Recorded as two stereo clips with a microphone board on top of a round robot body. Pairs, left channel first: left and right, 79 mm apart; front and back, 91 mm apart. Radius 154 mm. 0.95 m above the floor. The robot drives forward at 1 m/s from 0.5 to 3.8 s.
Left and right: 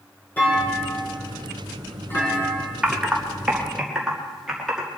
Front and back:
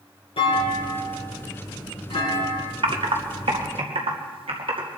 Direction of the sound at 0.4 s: 20° left.